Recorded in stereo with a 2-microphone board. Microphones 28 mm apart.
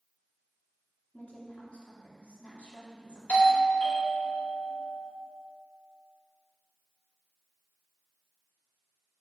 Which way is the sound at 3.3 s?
50° left (ahead or behind).